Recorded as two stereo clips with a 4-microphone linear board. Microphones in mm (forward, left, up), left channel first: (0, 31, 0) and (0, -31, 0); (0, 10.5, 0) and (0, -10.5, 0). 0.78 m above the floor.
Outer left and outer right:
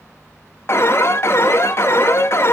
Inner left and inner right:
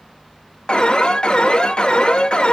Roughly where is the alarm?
Left.